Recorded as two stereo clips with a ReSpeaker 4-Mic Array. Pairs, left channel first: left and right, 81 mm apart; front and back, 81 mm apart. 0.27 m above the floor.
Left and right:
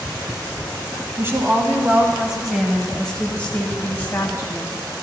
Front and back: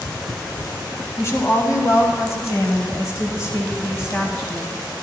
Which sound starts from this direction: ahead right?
A woman speaking, at 1.2 s.